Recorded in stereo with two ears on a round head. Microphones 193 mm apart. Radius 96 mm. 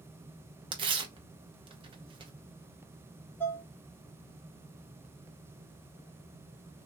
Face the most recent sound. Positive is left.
turn(degrees=10)  # may be behind; listen again after turning